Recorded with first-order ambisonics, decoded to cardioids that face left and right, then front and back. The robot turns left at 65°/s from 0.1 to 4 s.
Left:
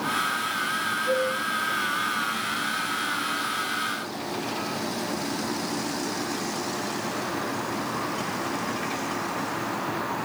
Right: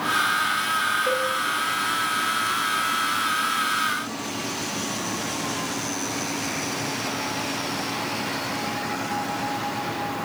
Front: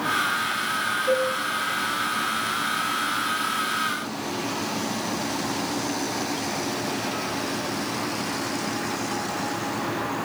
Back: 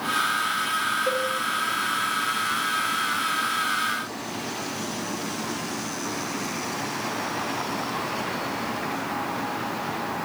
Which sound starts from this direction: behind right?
A cowbell, at 1.1 s.